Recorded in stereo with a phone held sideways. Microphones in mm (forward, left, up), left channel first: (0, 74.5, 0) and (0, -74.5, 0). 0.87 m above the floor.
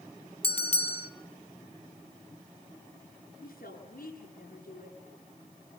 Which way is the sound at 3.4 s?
80° left.